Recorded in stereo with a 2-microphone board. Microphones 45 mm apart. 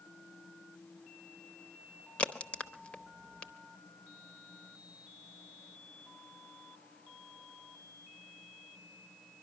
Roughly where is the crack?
Left.